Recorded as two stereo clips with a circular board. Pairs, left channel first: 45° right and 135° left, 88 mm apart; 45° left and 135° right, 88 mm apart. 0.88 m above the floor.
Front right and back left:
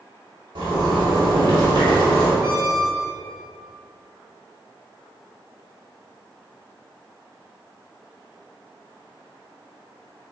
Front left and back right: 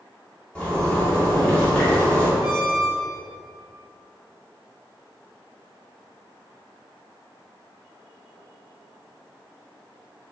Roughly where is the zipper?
Behind left.